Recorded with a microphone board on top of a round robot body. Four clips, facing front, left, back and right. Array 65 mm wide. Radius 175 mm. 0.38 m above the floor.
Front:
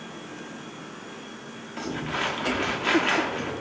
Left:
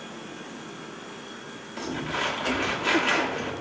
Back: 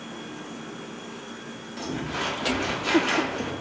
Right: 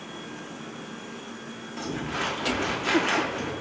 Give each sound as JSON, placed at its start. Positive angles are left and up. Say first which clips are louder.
{"t": 1.8, "sound": "crumpling", "louder": "left 1 dB, front 1 dB", "azimuth_deg": 0, "distance_m": 1.3}